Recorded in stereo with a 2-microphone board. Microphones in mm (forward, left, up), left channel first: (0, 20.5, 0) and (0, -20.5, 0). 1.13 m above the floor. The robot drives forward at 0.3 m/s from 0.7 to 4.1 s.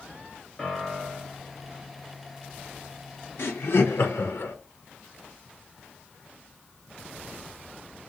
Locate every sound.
0.6 s a piano: 5° left (ahead or behind), 1.1 m; by 1.4 s 10° left (ahead or behind), 0.9 m
3.4 s laughter: 70° left (ahead or behind), 0.6 m; by 4.5 s 85° left, 0.5 m